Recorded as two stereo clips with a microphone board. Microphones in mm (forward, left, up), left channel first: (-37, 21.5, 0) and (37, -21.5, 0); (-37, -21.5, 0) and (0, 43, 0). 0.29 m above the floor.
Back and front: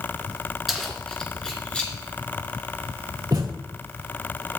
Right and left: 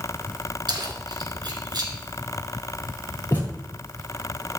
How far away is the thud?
About 4 m.